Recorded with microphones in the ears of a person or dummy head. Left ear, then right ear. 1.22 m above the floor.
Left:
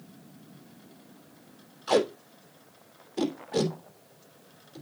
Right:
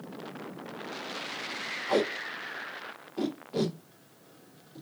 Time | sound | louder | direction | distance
1.9 | tape being pulled | left 4 dB | 40° left (ahead or behind) | 2.5 m